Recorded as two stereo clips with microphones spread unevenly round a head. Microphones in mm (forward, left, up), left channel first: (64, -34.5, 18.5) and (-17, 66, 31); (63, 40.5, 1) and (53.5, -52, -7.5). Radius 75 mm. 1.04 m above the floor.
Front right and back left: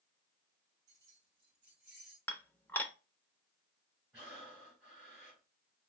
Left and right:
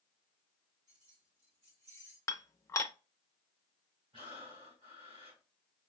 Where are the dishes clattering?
30° left, 0.8 m.